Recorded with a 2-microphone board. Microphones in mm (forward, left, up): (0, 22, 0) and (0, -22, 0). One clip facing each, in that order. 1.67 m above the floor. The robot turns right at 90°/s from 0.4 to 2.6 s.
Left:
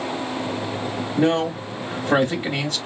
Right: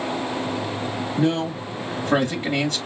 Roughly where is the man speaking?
Ahead left.